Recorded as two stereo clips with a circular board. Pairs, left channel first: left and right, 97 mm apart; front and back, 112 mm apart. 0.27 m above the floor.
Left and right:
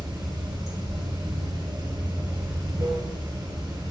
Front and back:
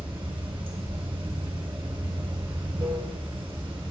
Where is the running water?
135° right, 2 m.